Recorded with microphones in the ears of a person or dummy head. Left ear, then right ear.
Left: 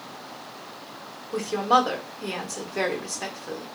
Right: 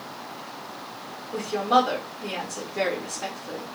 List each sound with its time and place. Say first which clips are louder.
1.3 s a woman speaking: even; 45° left (ahead or behind), 0.8 m